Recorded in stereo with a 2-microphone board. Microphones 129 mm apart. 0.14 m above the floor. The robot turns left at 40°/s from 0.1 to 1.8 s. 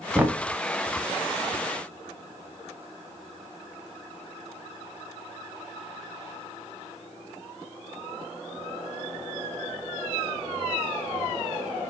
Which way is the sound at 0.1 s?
10° right (ahead or behind).